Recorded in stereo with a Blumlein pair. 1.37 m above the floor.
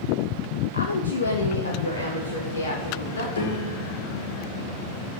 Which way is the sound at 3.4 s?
70° left.